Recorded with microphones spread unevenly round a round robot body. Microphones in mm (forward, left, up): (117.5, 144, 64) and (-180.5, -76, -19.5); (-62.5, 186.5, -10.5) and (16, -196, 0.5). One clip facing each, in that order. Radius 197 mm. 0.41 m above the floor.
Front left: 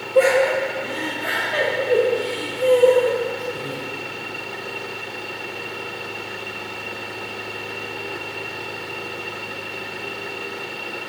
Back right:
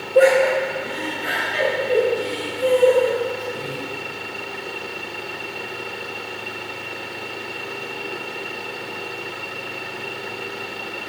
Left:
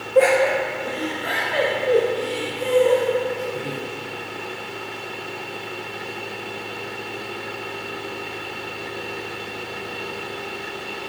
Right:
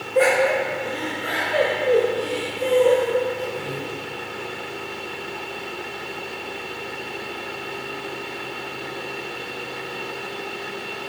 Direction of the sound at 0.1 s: 65° right.